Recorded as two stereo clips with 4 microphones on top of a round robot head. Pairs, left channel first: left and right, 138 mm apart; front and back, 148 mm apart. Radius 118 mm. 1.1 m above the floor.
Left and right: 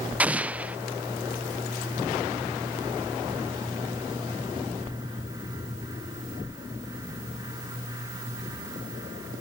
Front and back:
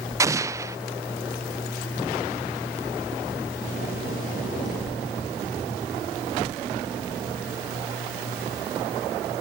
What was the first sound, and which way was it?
An explosion, 155° right.